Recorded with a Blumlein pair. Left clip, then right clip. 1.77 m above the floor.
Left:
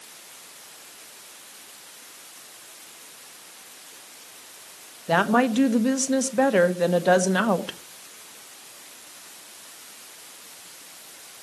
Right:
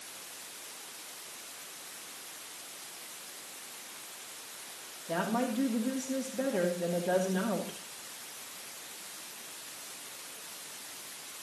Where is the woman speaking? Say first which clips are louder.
Left 12 dB; 40° left, 1.1 m.